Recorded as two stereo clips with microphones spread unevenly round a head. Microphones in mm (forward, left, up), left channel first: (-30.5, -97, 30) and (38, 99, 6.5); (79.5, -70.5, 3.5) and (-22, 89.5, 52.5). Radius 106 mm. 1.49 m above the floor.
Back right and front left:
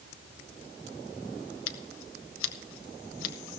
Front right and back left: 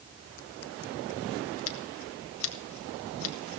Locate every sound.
1.7 s scissors: 85° right, 0.9 m